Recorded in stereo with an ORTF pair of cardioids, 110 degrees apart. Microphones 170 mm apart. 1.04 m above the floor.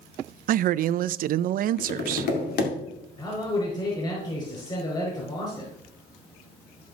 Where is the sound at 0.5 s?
60° right, 0.5 m.